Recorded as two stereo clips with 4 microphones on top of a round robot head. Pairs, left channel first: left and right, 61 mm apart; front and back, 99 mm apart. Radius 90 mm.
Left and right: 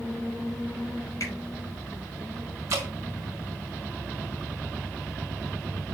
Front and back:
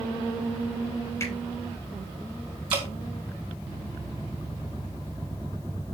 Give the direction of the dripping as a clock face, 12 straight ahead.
5 o'clock.